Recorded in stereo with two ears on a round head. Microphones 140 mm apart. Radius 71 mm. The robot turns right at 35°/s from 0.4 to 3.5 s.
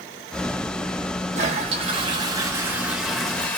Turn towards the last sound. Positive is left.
turn(degrees=10)